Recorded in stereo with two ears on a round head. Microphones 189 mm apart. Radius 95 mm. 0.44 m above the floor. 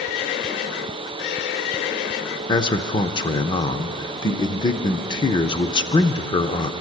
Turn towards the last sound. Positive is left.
turn(degrees=20)  # may be behind; listen again after turning